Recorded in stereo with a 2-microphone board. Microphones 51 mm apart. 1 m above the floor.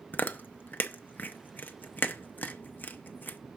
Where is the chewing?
30° left (ahead or behind), 0.6 m.